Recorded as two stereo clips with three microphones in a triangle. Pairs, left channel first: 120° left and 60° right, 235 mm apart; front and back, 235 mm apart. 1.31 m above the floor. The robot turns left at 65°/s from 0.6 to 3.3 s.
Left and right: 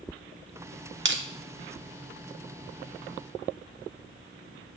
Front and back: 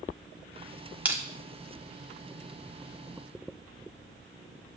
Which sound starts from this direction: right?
Crushing, at 1.1 s.